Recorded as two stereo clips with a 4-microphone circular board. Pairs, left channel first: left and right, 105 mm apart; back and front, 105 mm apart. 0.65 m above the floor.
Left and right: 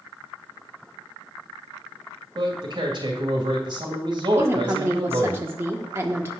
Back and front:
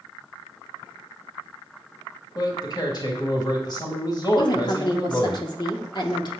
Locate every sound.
2.4 s a man speaking: 130° right, 2.5 m
4.4 s a woman speaking: 150° right, 1.5 m